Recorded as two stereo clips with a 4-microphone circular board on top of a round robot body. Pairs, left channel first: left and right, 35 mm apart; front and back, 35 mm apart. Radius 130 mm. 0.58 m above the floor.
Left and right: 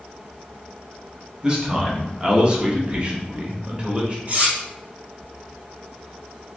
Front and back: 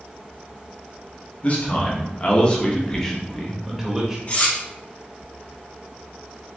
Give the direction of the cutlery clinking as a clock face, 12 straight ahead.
2 o'clock.